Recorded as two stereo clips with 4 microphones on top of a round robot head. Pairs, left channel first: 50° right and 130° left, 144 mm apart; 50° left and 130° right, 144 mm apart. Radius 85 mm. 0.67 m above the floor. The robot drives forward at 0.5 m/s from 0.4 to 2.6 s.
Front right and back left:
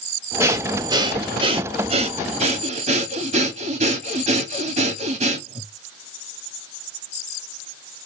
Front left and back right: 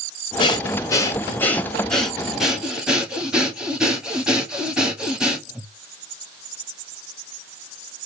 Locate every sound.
0.4 s breathing: 70° left, 1.1 m; by 5.7 s 150° left, 1.4 m